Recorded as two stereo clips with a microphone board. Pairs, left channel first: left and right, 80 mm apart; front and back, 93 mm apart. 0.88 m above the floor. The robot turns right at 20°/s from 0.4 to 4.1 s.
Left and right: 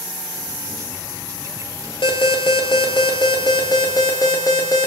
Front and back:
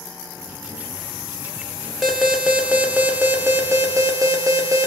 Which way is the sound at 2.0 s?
90° left.